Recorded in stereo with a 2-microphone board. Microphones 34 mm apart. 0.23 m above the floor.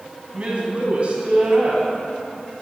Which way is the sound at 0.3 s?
35° right (ahead or behind).